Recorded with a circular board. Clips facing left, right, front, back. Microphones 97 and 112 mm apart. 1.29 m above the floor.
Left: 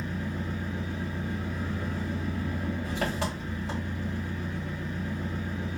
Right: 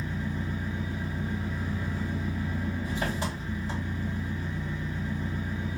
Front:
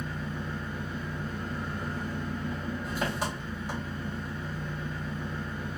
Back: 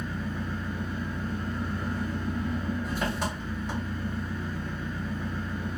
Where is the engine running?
85° left, 1.5 m.